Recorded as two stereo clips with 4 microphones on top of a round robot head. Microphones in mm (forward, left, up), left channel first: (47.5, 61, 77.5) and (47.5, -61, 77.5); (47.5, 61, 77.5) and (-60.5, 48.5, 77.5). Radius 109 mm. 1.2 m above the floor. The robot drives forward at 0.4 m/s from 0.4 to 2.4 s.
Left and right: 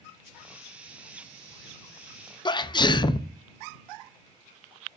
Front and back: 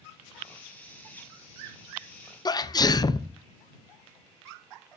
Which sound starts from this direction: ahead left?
A sneeze, at 2.5 s.